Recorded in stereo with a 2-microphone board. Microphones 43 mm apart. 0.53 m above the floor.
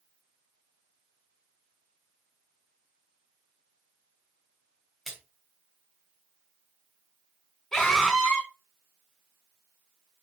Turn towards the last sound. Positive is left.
turn(degrees=15)  # may be behind; listen again after turning